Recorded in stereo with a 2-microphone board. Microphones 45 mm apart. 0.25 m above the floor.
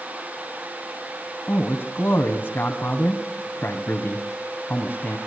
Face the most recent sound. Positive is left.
turn(degrees=45)  # may be behind; listen again after turning